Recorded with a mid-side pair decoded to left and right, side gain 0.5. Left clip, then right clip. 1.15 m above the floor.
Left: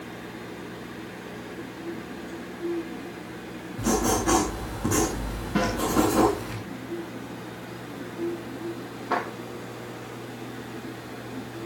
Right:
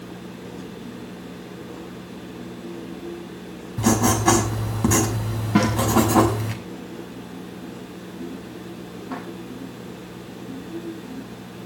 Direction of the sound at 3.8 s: 65° right.